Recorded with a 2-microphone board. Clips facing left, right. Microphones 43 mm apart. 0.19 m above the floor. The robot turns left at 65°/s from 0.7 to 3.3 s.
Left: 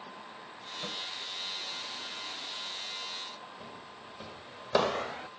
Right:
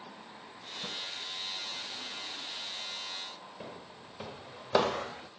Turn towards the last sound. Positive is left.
turn(degrees=35)  # may be behind; listen again after turning